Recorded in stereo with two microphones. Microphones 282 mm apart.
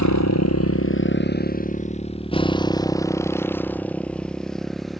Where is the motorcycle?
75° left (ahead or behind); by 5.0 s centre (ahead or behind).